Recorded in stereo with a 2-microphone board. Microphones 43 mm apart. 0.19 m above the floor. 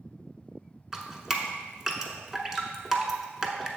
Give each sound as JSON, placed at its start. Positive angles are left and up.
{"t": 0.9, "sound": "dripping", "side_deg": -10, "distance_m": 0.9}